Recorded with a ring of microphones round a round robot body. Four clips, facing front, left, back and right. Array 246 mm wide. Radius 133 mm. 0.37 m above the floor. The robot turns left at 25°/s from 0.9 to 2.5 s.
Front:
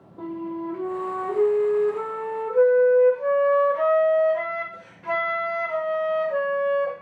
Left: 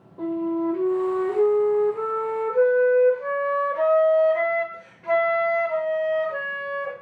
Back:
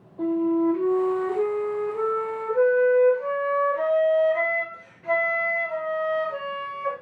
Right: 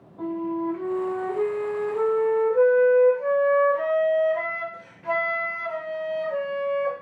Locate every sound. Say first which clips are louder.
0.2 s a flute: left 3 dB, back 9 dB; 40° left, 2 m; by 6.9 s straight ahead, 2 m